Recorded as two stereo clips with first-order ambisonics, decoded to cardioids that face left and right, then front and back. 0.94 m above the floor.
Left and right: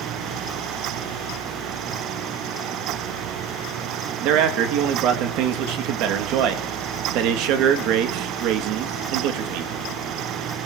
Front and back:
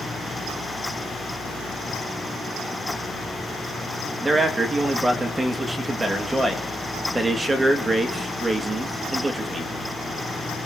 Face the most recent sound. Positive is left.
turn(degrees=-100)